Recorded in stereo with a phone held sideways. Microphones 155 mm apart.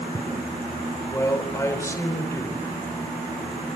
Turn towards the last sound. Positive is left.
turn(degrees=20)  # may be behind; listen again after turning